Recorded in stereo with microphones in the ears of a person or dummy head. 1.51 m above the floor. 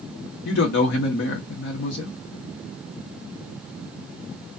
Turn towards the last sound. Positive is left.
turn(degrees=65)  # may be behind; listen again after turning